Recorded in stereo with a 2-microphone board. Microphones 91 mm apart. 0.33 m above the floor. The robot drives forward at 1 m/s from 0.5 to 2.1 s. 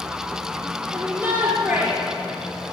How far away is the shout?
About 6.5 m.